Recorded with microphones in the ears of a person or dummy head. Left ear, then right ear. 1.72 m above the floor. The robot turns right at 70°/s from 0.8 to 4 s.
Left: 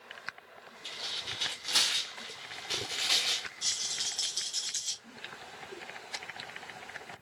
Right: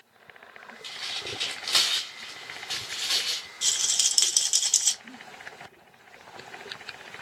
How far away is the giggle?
About 1.6 m.